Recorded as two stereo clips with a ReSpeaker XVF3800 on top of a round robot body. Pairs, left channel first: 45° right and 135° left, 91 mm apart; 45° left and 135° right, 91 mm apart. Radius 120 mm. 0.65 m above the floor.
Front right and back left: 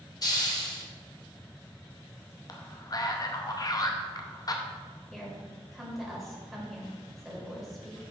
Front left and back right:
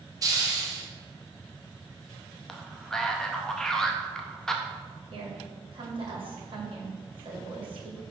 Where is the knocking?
I don't hear knocking.